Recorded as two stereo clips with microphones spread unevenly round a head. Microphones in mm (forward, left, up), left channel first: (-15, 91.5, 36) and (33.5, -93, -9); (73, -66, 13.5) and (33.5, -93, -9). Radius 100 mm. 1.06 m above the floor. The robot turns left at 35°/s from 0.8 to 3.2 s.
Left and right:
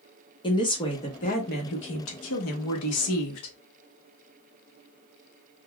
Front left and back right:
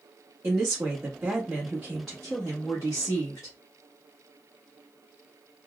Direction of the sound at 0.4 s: 175° left.